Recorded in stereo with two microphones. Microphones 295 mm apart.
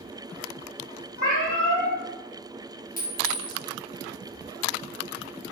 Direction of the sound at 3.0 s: 30° left (ahead or behind).